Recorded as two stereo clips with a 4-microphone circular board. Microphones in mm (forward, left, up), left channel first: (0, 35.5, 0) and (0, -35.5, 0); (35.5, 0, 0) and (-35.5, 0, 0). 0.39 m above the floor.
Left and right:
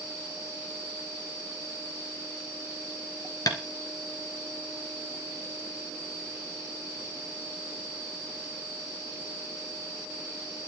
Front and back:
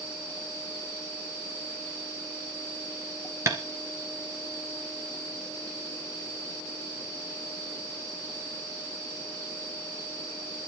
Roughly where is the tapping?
Behind left.